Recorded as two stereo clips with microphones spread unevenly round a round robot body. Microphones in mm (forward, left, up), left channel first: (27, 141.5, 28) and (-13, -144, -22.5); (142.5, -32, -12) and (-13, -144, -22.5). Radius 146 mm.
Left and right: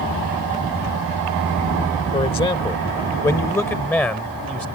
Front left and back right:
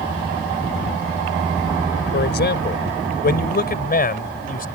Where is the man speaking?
10° left; by 4.7 s 5° right.